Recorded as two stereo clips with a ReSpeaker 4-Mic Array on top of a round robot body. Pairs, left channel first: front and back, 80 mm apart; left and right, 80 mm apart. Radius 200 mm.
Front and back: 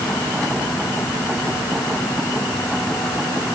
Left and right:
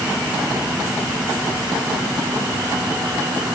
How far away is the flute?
No flute in this recording.